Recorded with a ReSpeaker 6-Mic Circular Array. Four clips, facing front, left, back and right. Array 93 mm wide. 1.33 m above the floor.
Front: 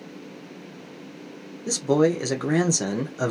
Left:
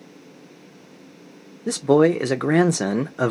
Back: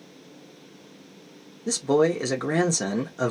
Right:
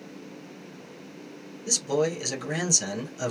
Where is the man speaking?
85° left, 0.6 m.